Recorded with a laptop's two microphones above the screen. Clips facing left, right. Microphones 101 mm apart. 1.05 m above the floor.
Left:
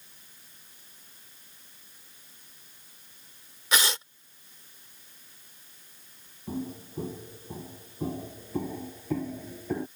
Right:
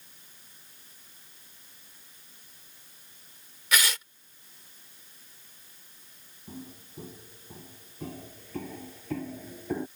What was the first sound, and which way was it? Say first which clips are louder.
Tearing paper: left 1 dB; 30° left (ahead or behind).